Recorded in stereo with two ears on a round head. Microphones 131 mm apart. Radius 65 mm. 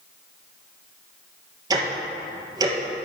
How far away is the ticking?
About 2 m.